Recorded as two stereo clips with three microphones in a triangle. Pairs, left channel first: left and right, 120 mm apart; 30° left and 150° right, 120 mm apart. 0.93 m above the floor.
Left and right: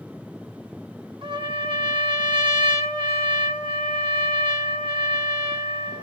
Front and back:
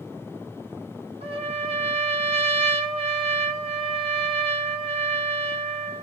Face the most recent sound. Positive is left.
turn(degrees=-135)